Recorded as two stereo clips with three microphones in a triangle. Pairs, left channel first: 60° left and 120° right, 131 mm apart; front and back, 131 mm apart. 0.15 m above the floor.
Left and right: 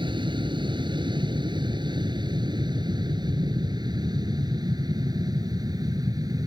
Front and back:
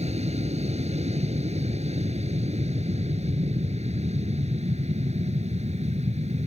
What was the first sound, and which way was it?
An aircraft, 165° right.